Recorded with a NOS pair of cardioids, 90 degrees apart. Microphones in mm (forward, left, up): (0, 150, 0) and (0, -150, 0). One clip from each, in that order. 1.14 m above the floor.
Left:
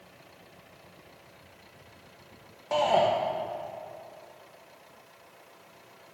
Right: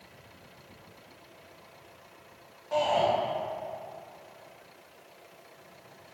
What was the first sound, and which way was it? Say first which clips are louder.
A shout: left 2 dB; 60° left.